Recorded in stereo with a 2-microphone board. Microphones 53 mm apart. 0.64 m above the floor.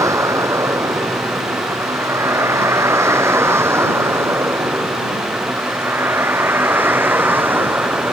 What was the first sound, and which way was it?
A vehicle, 75° right (ahead or behind).